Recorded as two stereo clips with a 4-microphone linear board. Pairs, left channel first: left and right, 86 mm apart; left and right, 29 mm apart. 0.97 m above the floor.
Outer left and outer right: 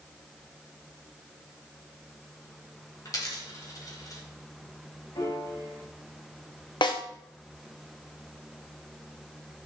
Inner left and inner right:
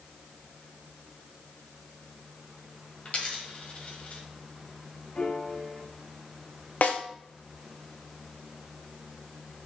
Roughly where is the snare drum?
Left.